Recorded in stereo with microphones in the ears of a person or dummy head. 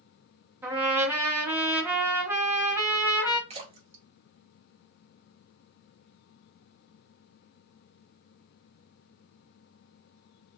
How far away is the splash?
About 0.5 m.